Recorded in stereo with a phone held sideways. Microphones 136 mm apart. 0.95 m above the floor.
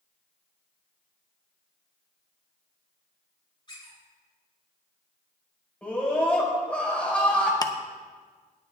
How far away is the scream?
About 5 m.